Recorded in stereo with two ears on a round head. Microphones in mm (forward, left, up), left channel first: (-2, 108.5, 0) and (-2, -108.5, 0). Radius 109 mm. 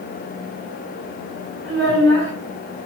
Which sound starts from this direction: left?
A child speaking, at 1.6 s.